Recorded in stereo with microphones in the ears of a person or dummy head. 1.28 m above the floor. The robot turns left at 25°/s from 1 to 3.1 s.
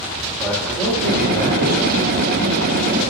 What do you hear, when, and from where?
0.4 s a man speaking: 5° left (ahead or behind), 1.4 m; by 2.1 s 30° left (ahead or behind), 1.4 m